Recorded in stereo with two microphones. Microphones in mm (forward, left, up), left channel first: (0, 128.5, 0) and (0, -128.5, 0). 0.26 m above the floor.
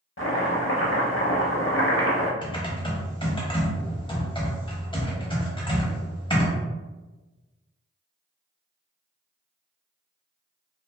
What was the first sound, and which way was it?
Chopping, 50° left (ahead or behind).